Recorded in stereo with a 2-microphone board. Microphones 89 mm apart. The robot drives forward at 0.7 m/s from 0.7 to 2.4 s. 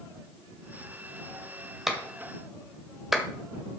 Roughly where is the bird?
I don't hear a bird.